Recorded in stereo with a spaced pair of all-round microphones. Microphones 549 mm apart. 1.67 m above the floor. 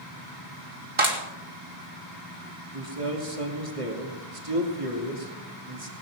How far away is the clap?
About 3 m.